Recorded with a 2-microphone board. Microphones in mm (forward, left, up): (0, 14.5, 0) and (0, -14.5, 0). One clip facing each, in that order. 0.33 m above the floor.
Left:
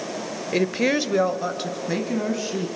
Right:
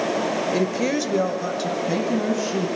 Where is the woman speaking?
25° left (ahead or behind), 0.9 m; by 2.7 s 5° left (ahead or behind), 3 m.